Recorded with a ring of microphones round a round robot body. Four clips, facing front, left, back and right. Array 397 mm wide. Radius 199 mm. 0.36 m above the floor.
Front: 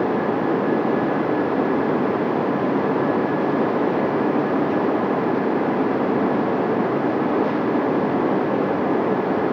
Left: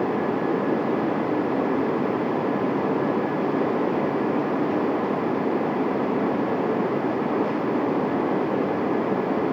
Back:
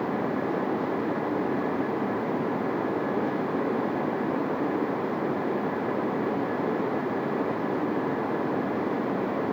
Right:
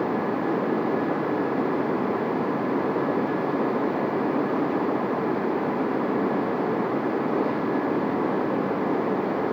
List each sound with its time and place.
Only background noise.